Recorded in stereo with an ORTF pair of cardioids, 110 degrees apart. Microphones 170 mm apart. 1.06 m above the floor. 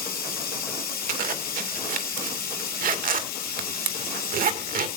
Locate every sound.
0.0 s running water: 65° left, 6.5 m
1.1 s a zipper: 60° right, 2.0 m